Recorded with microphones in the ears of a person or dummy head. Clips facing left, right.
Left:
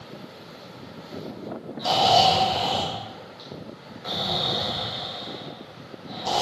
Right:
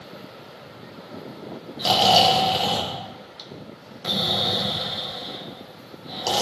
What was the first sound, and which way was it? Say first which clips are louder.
Snoring: right 1 dB; 40° right (ahead or behind).